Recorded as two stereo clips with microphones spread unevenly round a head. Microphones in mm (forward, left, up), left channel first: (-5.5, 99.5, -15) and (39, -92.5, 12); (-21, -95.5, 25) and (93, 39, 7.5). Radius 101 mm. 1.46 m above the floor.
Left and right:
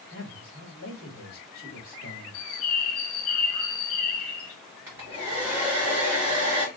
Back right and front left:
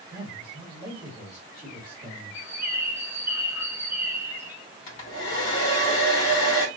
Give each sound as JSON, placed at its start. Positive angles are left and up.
{"t": 0.1, "sound": "a man speaking", "azimuth_deg": 125, "distance_m": 2.0}
{"t": 2.3, "sound": "a bird", "azimuth_deg": 130, "distance_m": 0.7}
{"t": 4.9, "sound": "a hair dryer", "azimuth_deg": -155, "distance_m": 1.5}